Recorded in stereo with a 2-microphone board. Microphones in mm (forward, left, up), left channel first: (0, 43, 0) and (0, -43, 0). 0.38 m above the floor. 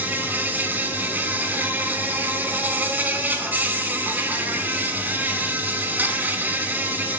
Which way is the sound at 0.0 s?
20° right (ahead or behind).